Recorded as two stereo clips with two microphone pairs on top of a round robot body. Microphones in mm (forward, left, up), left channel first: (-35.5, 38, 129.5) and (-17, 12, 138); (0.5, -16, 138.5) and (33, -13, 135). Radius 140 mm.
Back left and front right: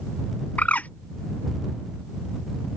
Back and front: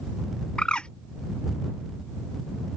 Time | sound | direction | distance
0.6 | a bird | 125° left | ?